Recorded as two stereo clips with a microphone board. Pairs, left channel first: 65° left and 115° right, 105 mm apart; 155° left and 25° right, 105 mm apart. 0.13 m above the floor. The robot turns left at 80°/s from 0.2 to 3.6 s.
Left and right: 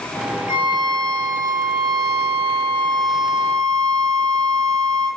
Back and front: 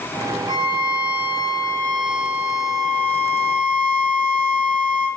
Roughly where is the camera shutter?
I don't hear a camera shutter.